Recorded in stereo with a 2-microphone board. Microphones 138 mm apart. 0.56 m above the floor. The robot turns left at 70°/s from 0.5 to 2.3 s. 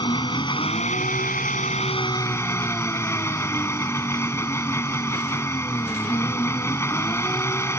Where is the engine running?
145° left; by 7.8 s 20° left.